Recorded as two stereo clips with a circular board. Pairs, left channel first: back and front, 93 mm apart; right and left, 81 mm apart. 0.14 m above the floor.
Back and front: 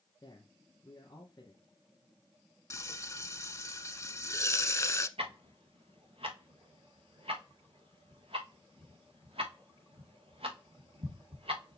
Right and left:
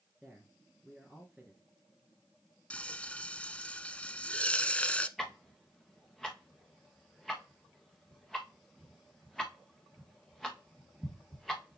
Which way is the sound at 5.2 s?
Straight ahead.